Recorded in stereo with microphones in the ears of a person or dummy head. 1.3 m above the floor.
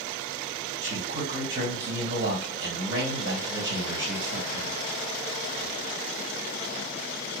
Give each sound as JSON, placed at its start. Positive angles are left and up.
{"t": 0.8, "sound": "a man speaking", "side_deg": -70, "distance_m": 2.5}